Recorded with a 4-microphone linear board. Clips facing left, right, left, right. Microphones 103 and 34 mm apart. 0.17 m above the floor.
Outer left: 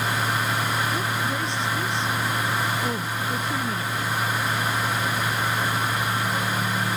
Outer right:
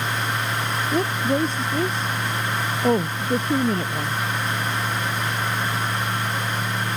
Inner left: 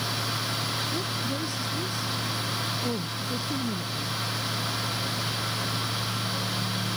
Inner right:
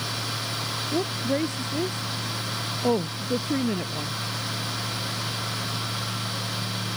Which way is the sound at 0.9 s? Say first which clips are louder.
Outer right 5 dB, inner right 4 dB; 45° right (ahead or behind).